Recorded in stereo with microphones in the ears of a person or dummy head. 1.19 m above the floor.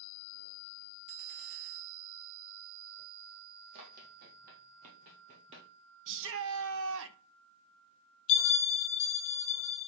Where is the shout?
75° right (ahead or behind), 0.9 m.